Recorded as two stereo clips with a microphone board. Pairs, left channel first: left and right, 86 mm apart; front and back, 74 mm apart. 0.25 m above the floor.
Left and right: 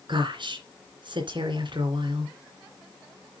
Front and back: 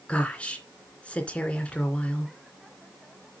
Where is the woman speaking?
75° right, 3 m.